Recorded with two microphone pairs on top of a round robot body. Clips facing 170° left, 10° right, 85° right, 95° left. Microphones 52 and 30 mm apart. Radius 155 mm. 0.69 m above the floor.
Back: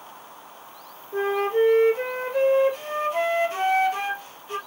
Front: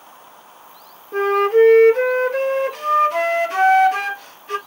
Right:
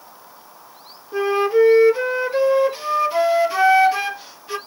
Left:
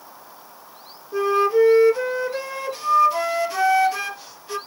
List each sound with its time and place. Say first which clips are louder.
1.1 s a flute: front 8 dB, right 1 dB; 20° right, 1.3 m